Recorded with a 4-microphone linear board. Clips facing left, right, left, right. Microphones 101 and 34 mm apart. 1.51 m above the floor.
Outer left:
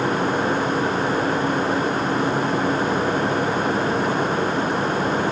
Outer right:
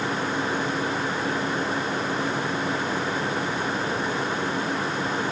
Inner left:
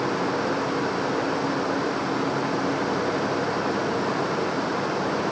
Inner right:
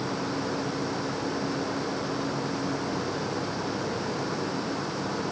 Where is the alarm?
No alarm in this recording.